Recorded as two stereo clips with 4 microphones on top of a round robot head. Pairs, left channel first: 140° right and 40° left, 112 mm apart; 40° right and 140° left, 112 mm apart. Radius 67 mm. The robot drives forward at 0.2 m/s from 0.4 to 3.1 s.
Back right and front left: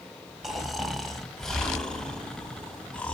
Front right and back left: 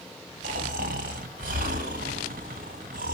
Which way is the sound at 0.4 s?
130° left.